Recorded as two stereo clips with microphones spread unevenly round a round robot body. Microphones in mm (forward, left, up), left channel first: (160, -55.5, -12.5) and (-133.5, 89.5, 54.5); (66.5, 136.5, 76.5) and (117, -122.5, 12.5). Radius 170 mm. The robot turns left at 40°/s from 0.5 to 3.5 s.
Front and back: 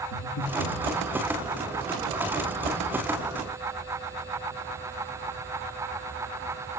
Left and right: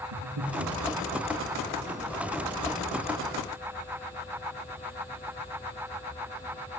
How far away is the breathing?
About 3.5 m.